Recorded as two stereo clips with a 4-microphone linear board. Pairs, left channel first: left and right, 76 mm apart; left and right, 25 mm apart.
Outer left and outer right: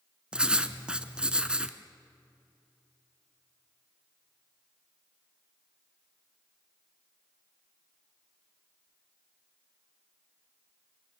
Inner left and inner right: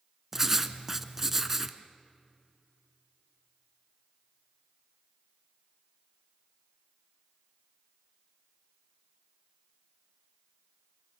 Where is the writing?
10° right (ahead or behind), 1.0 m.